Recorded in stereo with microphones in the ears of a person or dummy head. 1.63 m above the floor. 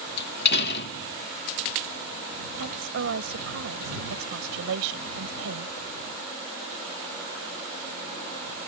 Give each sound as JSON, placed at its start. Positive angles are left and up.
{"t": 0.2, "sound": "a door slam", "side_deg": 60}
{"t": 2.6, "sound": "a woman speaking", "side_deg": -75}